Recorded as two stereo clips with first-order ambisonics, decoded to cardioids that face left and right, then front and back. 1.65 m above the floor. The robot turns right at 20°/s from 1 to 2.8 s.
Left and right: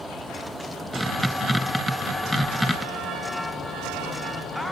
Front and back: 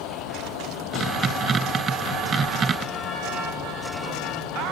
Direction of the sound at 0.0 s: 5° right.